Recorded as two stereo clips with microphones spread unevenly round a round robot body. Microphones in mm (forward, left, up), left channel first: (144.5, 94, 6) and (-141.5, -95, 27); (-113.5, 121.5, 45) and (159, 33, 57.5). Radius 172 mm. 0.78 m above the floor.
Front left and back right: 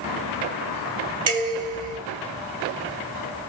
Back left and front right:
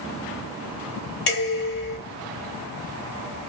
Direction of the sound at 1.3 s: 165° left.